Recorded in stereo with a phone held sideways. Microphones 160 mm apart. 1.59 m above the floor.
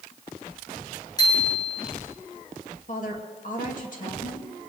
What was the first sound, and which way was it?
A bicycle bell, 25° left (ahead or behind).